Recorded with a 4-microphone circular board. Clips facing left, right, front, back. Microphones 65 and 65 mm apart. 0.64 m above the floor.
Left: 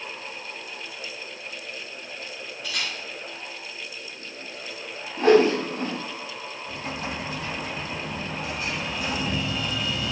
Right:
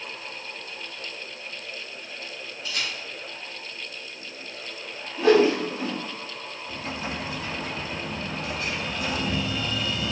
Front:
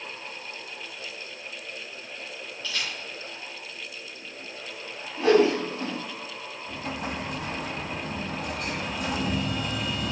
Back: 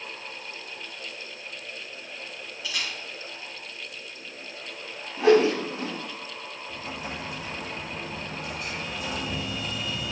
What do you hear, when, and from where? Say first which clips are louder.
2.6 s a camera shutter: even, even; 100° left, 5.5 m
5.2 s a whoosh: left 1 dB, back 1 dB; 115° left, 4.5 m
6.7 s an explosion: even, front 4 dB; 25° left, 2 m